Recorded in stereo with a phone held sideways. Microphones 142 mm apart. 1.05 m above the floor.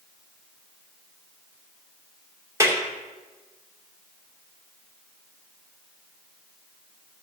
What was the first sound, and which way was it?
A clap, 20° right (ahead or behind).